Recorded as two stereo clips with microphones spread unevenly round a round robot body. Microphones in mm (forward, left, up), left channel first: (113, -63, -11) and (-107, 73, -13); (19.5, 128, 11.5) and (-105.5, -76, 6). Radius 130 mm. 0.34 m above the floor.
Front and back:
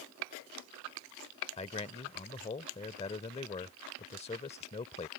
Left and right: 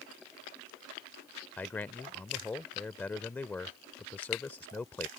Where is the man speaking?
15° right.